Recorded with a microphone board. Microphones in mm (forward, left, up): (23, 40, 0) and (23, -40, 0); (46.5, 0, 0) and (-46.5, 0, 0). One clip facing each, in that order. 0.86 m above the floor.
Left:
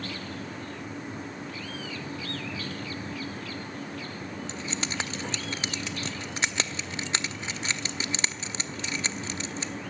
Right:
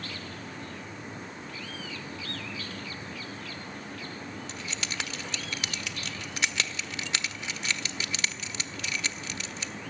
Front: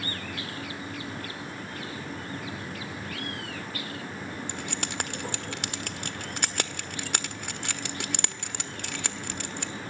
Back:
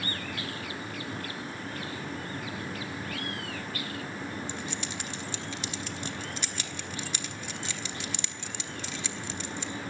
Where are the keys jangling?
30° left, 1.0 m.